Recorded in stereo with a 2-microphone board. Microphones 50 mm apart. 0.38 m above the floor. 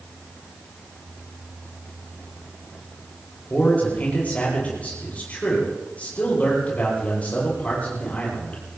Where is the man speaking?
30° left (ahead or behind), 10 m.